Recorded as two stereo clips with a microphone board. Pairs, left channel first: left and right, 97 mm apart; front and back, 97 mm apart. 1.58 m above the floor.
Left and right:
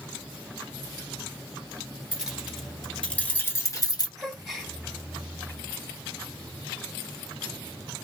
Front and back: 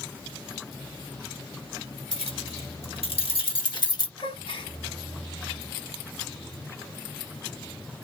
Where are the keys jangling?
10° right, 2.5 m; by 4.1 s 45° left, 1.7 m.